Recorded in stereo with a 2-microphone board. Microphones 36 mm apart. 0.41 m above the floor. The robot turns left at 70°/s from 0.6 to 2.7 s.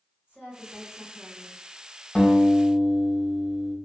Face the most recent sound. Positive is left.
turn(degrees=-5)